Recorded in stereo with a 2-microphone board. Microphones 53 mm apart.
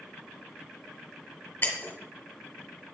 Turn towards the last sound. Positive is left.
turn(degrees=40)  # may be behind; listen again after turning